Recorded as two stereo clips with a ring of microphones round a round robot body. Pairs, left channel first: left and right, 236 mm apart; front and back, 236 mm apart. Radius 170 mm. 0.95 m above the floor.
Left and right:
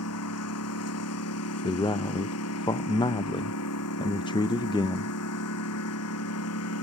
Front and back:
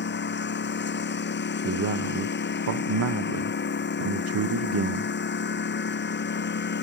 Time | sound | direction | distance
0.0 | a lawn mower | 40° left | ?
1.6 | a man speaking | 165° left | ?